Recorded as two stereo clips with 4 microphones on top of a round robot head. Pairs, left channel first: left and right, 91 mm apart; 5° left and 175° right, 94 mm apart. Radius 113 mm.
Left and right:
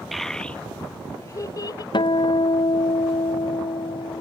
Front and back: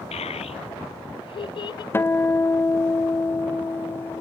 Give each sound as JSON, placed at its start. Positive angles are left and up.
{"t": 0.1, "sound": "a child speaking", "azimuth_deg": 0}
{"t": 1.9, "sound": "a guitar", "azimuth_deg": 70}